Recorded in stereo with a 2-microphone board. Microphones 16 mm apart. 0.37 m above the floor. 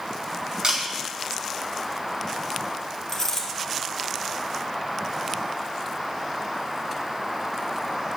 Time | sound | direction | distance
0.6 | a camera shutter | 55° right (ahead or behind) | 3.5 m
3.1 | a dropped coin | 25° left (ahead or behind) | 2.5 m